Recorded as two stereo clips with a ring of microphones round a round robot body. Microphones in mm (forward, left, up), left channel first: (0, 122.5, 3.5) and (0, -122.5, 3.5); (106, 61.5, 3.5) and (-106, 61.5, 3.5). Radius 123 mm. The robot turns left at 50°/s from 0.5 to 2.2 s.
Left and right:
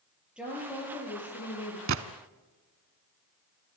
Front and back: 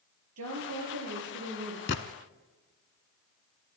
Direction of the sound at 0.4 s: 175° right.